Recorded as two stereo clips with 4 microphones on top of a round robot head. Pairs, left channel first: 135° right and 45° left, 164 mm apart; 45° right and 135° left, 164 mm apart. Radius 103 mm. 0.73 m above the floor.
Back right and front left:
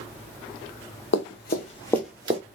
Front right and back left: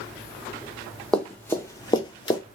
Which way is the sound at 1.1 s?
125° right.